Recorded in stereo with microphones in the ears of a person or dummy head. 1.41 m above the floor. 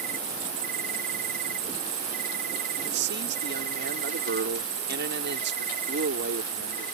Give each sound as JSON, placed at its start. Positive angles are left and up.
{"t": 0.0, "sound": "an insect", "side_deg": -45}
{"t": 2.9, "sound": "a man speaking", "side_deg": -60}